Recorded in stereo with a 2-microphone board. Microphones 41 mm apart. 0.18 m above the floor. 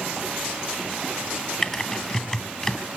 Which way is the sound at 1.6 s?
10° left (ahead or behind).